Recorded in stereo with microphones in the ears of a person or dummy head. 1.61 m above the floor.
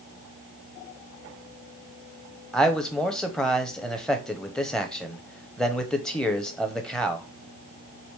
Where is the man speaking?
5° left (ahead or behind), 0.8 m.